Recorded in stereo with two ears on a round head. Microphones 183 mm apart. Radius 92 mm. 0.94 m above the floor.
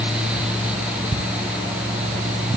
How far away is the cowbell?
No cowbell in this recording.